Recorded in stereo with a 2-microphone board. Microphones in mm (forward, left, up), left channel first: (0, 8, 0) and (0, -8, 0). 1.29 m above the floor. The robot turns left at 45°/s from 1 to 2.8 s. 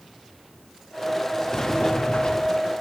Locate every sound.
1.5 s a sliding door: 140° left, 1.3 m; by 2.7 s 85° left, 1.3 m